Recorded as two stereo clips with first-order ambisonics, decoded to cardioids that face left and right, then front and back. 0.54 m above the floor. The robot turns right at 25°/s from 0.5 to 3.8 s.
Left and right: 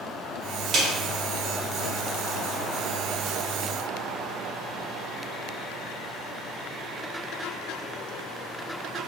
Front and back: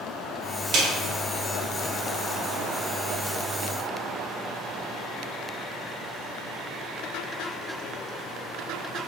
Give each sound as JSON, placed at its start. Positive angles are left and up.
{"t": 0.7, "sound": "a snare drum", "azimuth_deg": -155, "distance_m": 1.3}